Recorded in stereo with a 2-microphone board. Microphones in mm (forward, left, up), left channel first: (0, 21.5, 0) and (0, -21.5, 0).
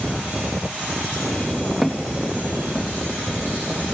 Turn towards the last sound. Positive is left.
turn(degrees=-10)  # may be behind; listen again after turning